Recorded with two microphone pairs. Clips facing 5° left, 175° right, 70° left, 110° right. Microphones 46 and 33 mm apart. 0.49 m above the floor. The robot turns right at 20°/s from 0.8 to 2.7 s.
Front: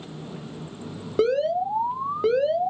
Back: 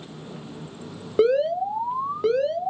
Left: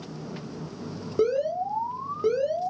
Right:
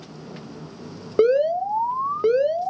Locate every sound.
1.2 s an alarm: 100° right, 0.6 m; by 2.7 s 70° right, 0.6 m